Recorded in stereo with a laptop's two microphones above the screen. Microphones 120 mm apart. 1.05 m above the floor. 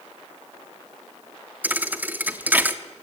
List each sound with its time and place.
1.6 s a thud: 15° right (ahead or behind), 0.8 m